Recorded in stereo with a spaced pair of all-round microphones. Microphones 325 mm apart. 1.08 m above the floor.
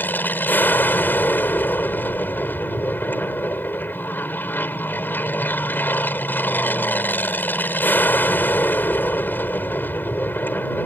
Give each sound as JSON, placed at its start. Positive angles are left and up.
{"t": 0.0, "sound": "an aircraft", "side_deg": 5}